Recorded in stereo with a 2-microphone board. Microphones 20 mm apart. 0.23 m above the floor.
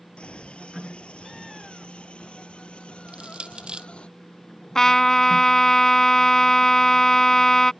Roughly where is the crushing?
Right.